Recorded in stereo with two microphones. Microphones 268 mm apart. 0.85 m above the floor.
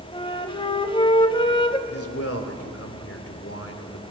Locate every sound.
0.1 s a flute: 20° left (ahead or behind), 1.2 m
1.9 s a man speaking: 60° left (ahead or behind), 2.5 m